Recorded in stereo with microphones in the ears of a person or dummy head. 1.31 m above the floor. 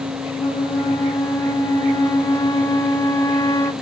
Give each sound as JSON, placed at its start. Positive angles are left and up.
{"t": 0.4, "sound": "a flute", "side_deg": 15, "distance_m": 0.5}